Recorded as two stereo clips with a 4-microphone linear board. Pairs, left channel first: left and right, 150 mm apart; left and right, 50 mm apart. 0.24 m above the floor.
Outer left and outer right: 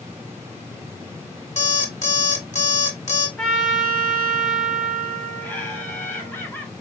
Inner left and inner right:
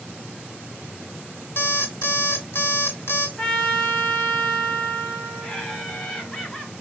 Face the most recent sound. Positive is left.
turn(degrees=15)  # may be behind; listen again after turning